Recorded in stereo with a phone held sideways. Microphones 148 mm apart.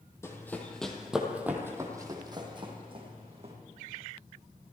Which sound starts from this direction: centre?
Running footsteps, at 0.2 s.